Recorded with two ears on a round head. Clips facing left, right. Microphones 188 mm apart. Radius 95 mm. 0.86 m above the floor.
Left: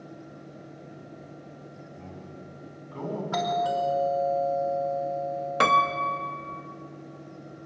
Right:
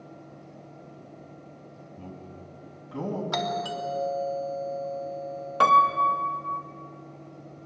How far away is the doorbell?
About 2.5 m.